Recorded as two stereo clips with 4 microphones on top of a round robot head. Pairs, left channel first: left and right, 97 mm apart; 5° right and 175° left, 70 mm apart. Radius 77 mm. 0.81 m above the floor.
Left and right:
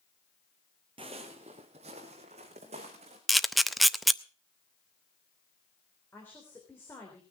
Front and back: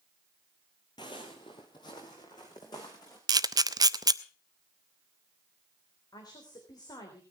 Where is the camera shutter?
Straight behind, 0.7 m.